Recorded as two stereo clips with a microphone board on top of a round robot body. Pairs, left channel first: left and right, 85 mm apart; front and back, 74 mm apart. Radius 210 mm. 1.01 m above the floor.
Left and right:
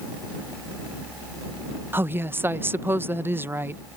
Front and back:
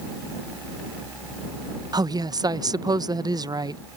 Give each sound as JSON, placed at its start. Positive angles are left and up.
{"t": 1.9, "sound": "a woman speaking", "azimuth_deg": -155}